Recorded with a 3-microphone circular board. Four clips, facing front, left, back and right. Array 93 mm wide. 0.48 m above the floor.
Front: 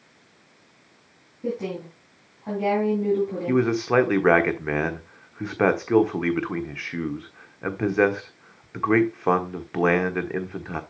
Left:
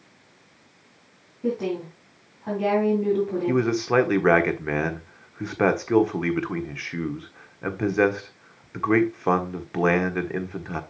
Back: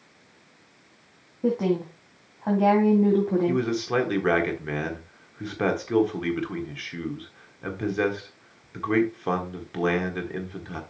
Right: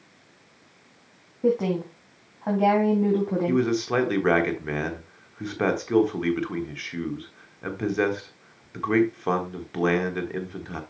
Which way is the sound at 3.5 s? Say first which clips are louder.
Left 2 dB, front 4 dB; 30° left.